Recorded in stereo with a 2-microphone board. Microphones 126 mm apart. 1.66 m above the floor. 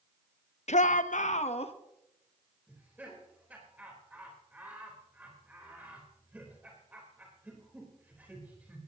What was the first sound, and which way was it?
A shout, 65° left (ahead or behind).